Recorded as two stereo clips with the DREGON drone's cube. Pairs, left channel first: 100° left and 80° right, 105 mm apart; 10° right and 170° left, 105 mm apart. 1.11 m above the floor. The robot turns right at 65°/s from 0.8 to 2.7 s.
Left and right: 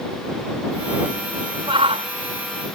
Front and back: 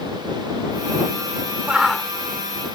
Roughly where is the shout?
Behind right.